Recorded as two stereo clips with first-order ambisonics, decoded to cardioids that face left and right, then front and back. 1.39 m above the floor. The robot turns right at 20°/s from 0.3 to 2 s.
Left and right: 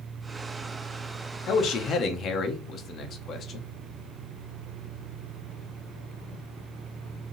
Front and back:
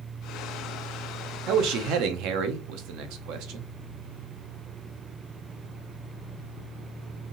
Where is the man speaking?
140° left, 0.8 m; by 3.7 s 150° left, 0.8 m.